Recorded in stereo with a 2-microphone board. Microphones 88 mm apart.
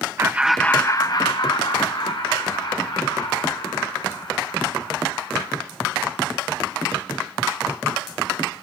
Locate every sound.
0.2 s laughter: 30° right (ahead or behind), 0.6 m; by 5.5 s 65° left (ahead or behind), 5 m